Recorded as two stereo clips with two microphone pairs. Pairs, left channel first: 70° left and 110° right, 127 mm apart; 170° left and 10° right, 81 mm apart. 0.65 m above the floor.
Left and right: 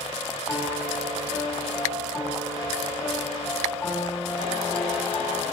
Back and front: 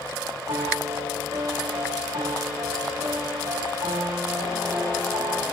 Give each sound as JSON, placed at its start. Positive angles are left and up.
{"t": 0.5, "sound": "a piano", "azimuth_deg": -5, "distance_m": 4.0}